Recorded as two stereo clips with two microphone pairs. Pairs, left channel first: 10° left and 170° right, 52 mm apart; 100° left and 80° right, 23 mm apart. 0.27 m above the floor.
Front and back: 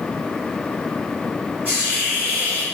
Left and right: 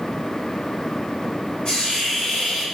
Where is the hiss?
135° left, 1.8 m.